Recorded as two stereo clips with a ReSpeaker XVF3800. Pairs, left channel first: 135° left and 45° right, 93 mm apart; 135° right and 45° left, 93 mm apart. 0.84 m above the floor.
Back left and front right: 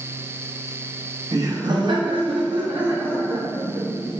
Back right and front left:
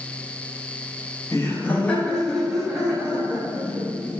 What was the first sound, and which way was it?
Laughter, 85° right.